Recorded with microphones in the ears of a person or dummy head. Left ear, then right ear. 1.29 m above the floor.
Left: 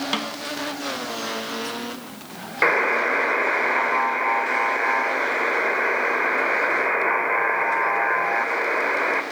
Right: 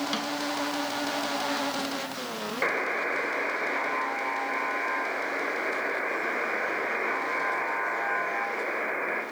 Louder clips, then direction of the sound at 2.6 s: Left 9 dB; 25° left (ahead or behind).